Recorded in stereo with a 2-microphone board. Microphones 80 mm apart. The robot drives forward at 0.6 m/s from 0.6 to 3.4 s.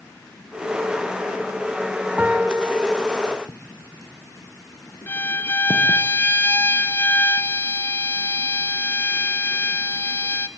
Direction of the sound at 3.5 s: 50° left (ahead or behind).